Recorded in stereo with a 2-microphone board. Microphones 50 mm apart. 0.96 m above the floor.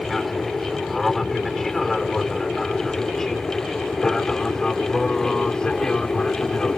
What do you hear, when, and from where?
0.0 s an aircraft: centre (ahead or behind); by 6.8 s 15° left (ahead or behind)